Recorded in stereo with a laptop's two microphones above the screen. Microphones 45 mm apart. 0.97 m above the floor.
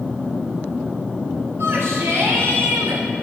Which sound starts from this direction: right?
A shout, at 1.6 s.